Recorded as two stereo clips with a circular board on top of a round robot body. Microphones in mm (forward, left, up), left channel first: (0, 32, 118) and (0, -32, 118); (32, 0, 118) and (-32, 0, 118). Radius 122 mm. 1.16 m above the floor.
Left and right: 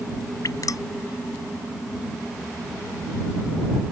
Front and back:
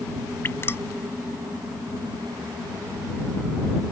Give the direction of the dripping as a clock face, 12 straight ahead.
10 o'clock.